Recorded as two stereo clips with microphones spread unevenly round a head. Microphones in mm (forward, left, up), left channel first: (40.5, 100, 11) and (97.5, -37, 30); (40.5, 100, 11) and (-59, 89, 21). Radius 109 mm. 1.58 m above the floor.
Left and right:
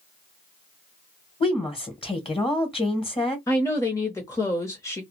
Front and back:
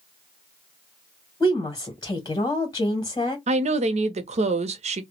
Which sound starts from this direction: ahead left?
A woman speaking, at 1.4 s.